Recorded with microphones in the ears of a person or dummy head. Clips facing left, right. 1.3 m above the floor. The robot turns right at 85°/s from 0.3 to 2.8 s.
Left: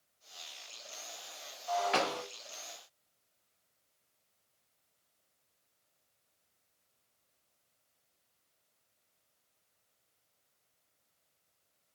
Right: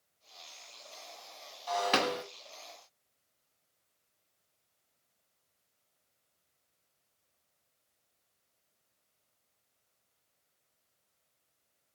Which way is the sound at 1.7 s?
80° right.